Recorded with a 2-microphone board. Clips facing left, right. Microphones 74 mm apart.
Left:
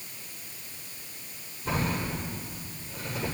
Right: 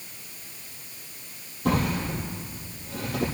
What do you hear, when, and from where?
1.6 s a drawer: 65° right (ahead or behind), 5 m